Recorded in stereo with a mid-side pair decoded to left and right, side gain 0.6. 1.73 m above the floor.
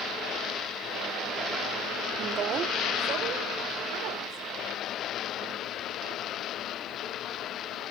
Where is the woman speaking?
40° right, 1.1 m; by 4.4 s 65° right, 4.5 m.